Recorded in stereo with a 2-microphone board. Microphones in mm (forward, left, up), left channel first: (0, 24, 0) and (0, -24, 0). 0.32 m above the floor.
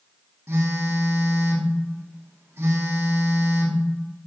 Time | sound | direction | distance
0.5 | a phone buzzing | 70° right (ahead or behind) | 0.7 m